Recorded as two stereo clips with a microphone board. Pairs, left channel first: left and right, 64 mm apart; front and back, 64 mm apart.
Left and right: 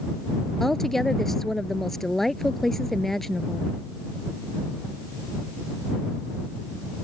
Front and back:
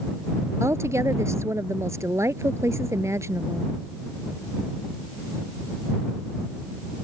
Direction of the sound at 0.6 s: 175° left.